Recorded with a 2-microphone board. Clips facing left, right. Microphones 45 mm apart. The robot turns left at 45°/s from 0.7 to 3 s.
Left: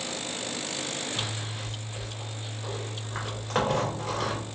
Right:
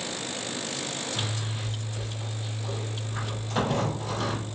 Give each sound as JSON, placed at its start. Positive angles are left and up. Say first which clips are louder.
{"t": 1.1, "sound": "a zipper", "louder": "right 1 dB", "azimuth_deg": -145, "distance_m": 2.5}